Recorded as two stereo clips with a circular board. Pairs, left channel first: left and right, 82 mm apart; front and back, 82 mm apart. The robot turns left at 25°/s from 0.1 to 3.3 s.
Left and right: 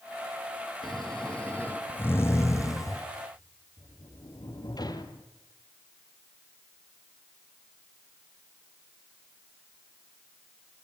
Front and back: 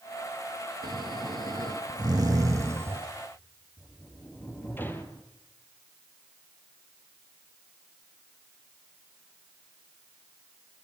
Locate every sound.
0.8 s snoring: 175° left, 2 m; by 3.0 s 120° left, 2 m
3.8 s a sliding door: 65° left, 2 m